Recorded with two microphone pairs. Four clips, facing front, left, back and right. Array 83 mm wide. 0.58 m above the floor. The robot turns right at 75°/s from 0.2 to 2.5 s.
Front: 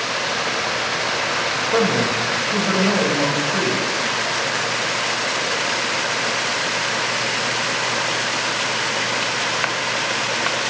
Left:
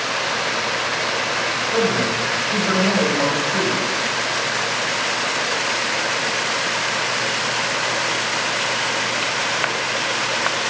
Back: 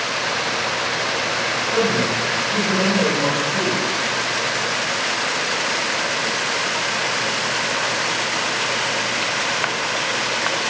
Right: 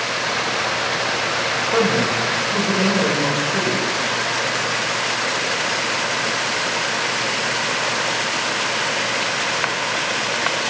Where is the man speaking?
15° right, 2.5 m; by 3.8 s 45° left, 2.5 m.